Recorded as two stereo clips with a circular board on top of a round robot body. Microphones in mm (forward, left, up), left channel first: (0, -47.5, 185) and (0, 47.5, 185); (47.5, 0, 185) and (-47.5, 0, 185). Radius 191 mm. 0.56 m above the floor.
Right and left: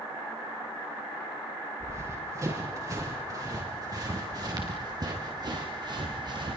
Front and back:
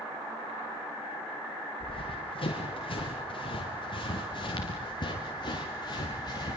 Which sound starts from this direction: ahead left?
Running footsteps, at 1.8 s.